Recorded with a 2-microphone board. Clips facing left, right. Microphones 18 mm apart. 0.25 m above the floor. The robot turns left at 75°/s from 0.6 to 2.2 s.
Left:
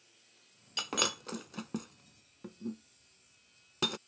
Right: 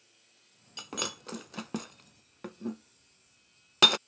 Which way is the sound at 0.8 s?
35° left (ahead or behind).